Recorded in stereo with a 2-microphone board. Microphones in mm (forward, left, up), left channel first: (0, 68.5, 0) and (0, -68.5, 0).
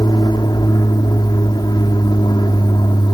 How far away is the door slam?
I don't hear a door slam.